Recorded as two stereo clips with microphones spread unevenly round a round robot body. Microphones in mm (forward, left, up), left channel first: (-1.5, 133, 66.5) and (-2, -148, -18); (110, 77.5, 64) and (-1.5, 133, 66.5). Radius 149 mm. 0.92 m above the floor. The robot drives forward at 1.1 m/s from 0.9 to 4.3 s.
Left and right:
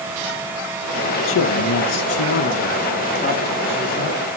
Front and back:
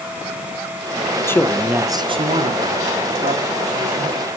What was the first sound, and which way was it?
A man speaking, 40° left.